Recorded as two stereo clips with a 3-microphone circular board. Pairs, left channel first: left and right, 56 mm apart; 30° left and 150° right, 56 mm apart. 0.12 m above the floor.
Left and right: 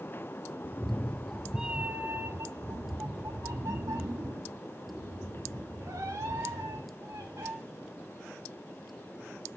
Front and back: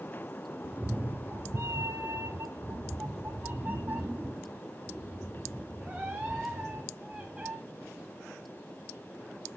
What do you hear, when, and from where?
0.6 s a cat meowing: 145° left, 0.7 m; by 7.5 s 85° right, 3 m